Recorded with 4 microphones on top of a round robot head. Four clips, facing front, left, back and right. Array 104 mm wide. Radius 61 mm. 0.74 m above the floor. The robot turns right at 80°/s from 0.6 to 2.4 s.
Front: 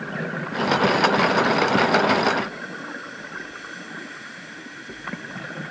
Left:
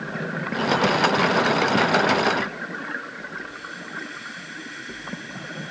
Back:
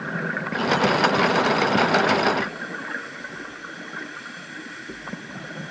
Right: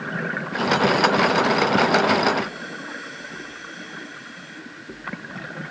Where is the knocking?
I don't hear knocking.